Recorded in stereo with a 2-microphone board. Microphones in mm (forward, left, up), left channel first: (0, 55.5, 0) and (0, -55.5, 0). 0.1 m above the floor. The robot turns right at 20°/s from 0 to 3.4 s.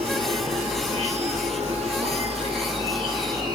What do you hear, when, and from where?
0.0 s an insect: 110° right, 3 m; by 3.5 s 45° right, 3 m